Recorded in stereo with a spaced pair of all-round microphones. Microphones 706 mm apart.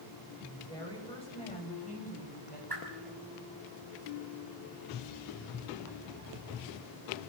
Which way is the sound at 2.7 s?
30° right (ahead or behind).